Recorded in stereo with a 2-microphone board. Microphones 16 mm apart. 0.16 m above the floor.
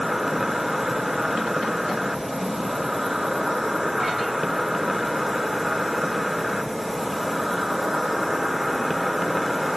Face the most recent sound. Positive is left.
turn(degrees=-35)  # may be behind; listen again after turning